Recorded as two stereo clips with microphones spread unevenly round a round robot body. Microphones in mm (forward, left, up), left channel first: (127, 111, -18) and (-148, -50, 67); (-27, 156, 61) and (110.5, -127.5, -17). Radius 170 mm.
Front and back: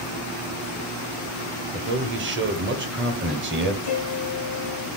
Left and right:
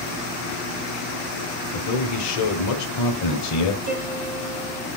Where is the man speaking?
150° left, 1.3 m.